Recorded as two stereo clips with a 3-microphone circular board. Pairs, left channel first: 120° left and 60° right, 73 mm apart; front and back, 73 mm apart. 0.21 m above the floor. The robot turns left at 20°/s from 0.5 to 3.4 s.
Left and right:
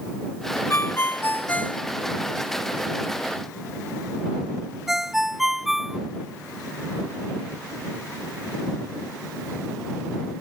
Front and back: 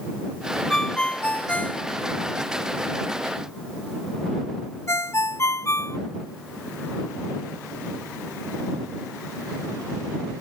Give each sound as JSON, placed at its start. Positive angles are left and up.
{"t": 0.7, "sound": "a ringtone", "azimuth_deg": 80}